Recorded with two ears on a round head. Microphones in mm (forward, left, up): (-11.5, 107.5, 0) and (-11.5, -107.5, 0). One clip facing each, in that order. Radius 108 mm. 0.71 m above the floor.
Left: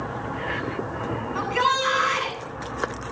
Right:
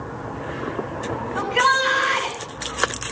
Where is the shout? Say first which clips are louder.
Right 4 dB; 15° left (ahead or behind), 8 m.